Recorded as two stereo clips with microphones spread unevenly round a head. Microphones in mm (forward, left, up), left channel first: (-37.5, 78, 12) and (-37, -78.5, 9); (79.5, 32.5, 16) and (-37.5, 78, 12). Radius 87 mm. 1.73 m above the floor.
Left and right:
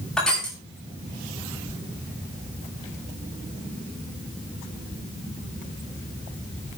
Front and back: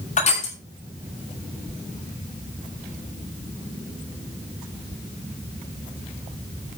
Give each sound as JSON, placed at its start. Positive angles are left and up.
{"t": 0.2, "sound": "crushing", "azimuth_deg": 5, "distance_m": 7.5}